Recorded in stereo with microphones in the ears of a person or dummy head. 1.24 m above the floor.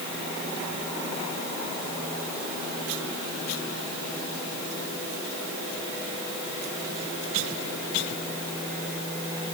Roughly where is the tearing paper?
I don't hear tearing paper.